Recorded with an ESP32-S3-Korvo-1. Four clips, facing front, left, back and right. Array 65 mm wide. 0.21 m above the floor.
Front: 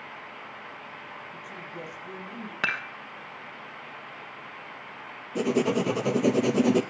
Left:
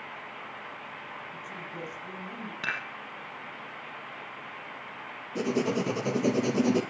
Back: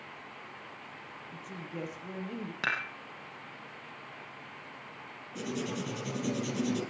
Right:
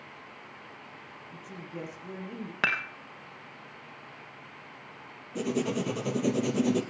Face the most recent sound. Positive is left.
turn(degrees=15)